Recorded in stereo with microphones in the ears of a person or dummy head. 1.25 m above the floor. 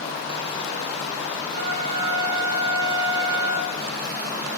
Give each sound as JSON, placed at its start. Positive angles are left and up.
{"t": 1.5, "sound": "a trumpet", "side_deg": -45, "distance_m": 6.5}